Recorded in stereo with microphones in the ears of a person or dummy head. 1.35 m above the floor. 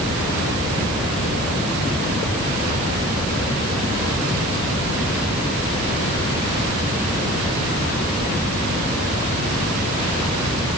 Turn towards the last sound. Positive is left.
No sound to turn to.